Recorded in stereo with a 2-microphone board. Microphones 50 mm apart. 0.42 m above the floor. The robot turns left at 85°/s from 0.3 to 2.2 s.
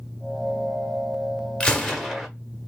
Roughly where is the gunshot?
Left.